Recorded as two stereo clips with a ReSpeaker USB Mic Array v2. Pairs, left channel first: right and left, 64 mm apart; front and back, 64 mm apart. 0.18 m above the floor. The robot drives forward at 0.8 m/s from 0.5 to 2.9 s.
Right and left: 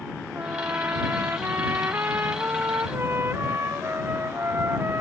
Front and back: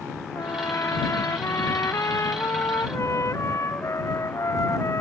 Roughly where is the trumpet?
Ahead left.